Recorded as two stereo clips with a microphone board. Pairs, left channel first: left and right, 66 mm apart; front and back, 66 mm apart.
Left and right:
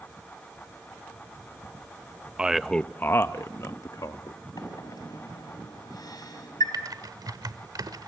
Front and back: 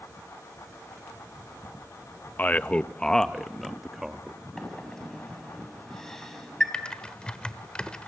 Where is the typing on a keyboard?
75° right, 1.2 m.